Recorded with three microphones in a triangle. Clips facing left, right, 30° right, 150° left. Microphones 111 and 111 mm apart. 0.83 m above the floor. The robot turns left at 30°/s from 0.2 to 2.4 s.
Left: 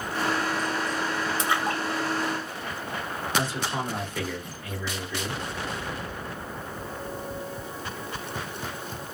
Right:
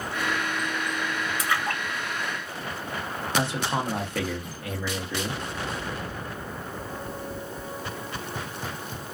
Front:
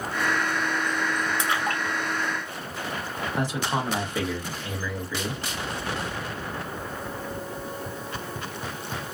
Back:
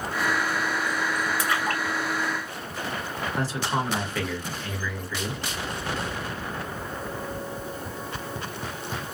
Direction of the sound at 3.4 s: 100° right.